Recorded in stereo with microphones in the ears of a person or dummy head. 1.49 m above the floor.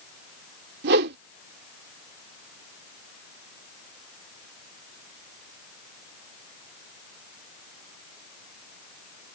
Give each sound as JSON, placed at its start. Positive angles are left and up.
{"t": 0.8, "sound": "a whoosh", "side_deg": -60}